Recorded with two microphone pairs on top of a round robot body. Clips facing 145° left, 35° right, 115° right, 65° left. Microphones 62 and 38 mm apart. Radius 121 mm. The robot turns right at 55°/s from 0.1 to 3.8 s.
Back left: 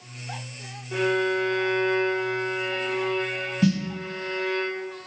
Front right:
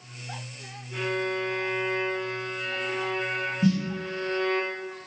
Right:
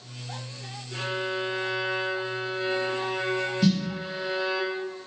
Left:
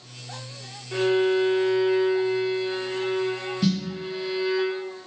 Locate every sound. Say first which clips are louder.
0.9 s a violin: back left 5 dB, left 9 dB; 115° left, 0.7 m; by 4.6 s 85° right, 0.7 m
3.6 s a snare drum: back left 2 dB, even; 150° left, 1.4 m; by 3.8 s 160° left, 1.4 m